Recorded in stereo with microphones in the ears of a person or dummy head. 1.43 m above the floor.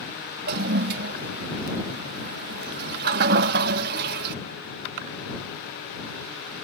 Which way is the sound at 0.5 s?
55° right (ahead or behind).